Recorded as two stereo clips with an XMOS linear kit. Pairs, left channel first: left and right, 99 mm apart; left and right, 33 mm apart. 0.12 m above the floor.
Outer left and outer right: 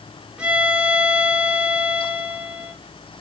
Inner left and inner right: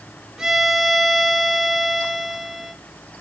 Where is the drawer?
I don't hear a drawer.